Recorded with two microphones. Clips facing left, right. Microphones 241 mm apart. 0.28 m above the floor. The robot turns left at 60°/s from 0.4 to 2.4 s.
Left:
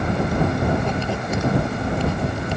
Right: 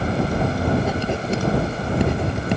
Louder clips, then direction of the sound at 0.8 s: Right 1 dB; centre (ahead or behind).